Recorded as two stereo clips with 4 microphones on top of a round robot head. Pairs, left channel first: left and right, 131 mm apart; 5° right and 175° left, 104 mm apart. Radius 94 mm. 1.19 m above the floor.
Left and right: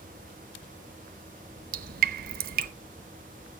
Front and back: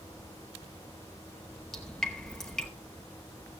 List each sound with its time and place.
1.7 s dripping: 90° right, 0.7 m